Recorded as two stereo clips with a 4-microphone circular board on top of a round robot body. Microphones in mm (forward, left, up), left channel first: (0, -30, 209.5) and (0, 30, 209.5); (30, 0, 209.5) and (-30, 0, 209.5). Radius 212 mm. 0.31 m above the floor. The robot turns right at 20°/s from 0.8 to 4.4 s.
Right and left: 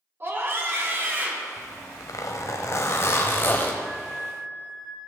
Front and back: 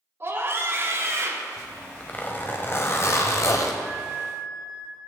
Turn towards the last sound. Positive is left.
turn(degrees=150)